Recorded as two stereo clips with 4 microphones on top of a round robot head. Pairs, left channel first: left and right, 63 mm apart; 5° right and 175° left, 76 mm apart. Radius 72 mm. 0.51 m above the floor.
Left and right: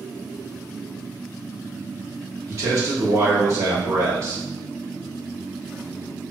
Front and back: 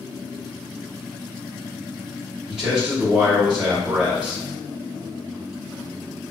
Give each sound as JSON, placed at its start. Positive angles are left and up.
{"t": 2.5, "sound": "a man speaking", "azimuth_deg": -105, "distance_m": 1.3}